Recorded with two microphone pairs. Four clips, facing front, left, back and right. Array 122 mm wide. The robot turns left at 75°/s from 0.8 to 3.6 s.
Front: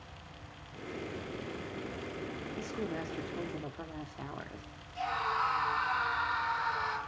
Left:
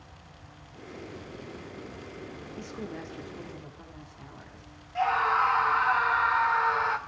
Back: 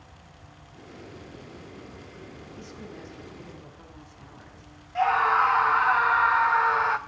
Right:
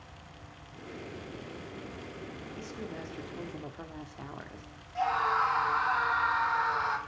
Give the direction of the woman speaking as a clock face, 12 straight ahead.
11 o'clock.